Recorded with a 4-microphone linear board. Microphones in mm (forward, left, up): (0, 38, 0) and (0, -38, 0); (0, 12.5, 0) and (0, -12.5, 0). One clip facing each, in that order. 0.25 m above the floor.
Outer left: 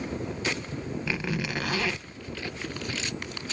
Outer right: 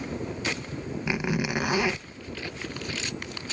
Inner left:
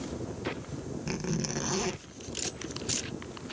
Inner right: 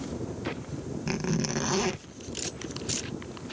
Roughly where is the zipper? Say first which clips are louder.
Outer right 5 dB, inner right 4 dB; centre.